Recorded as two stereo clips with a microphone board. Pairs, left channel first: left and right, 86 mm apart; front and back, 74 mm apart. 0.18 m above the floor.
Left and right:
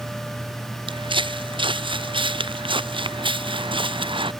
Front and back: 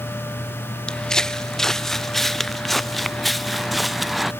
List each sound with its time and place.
0.9 s footsteps: 80° right; by 4.3 s 90° right